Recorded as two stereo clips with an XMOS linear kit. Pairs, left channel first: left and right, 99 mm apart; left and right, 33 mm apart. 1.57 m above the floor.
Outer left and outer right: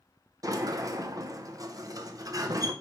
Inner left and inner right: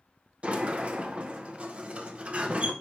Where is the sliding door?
35° right (ahead or behind), 0.8 m.